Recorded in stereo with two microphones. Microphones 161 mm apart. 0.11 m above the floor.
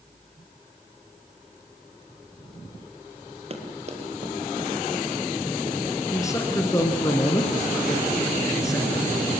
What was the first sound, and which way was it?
Running footsteps, 40° right (ahead or behind).